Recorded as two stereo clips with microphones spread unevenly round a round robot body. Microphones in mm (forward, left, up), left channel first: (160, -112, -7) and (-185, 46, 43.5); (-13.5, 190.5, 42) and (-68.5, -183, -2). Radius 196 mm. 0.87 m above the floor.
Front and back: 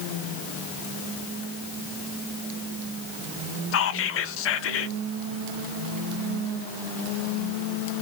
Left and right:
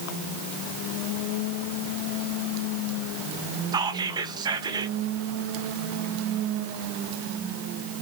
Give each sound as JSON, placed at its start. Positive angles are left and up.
{"t": 3.7, "sound": "whispering", "azimuth_deg": -35, "distance_m": 0.6}